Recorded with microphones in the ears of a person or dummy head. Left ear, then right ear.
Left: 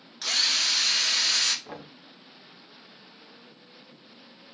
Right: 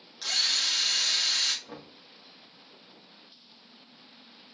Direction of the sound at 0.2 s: 10° left (ahead or behind).